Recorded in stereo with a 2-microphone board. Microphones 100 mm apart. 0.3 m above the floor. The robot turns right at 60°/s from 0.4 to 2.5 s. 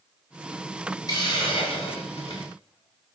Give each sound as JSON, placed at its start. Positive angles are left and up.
{"t": 1.1, "sound": "a hiss", "azimuth_deg": 35, "distance_m": 8.5}